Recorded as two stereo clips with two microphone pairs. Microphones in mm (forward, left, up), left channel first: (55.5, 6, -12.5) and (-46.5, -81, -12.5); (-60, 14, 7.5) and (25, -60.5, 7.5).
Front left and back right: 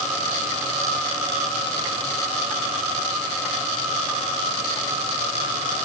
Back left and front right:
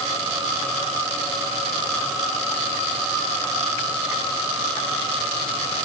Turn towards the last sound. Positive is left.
No sound to turn to.